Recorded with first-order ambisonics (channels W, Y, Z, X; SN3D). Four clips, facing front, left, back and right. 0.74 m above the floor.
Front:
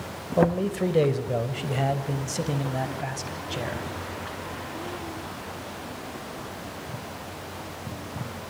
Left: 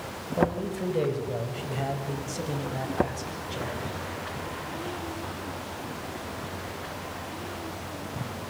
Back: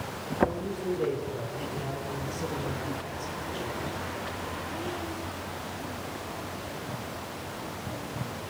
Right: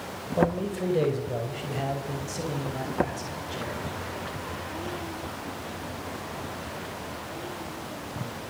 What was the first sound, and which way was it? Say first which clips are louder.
A man speaking: right 1 dB, front 6 dB; 10° right.